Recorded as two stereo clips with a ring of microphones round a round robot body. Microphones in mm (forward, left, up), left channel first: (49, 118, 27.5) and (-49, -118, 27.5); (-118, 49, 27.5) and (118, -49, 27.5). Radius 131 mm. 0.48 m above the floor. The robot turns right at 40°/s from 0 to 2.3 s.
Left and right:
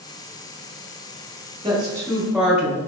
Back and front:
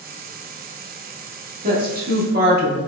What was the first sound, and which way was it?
A woman speaking, 55° right.